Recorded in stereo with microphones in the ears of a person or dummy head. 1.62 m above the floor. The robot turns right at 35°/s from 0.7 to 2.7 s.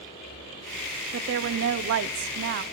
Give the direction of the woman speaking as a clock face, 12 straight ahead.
4 o'clock.